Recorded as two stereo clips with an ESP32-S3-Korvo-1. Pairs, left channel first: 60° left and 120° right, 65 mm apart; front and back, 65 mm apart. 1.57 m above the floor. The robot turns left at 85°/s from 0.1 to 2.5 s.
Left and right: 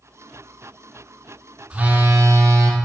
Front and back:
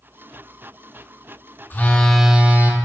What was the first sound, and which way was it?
A phone buzzing, 50° right.